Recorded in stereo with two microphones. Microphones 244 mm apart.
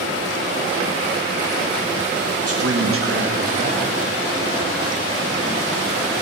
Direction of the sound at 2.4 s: 70° right (ahead or behind).